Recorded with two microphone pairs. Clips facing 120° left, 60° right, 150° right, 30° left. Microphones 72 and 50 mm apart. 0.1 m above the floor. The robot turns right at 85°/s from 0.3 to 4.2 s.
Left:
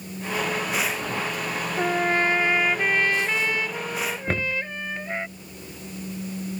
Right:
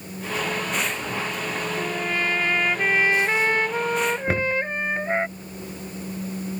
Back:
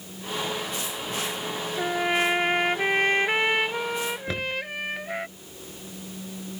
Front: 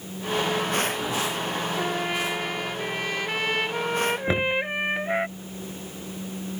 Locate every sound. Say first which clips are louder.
1.8 s a trumpet: left 7 dB, back 6 dB; 125° left; by 5.3 s 25° right
4.3 s knocking: right 4 dB, front 6 dB; 20° left